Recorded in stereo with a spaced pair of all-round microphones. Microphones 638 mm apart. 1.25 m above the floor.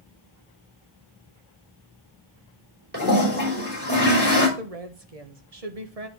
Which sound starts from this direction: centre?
A toilet flushing, at 2.9 s.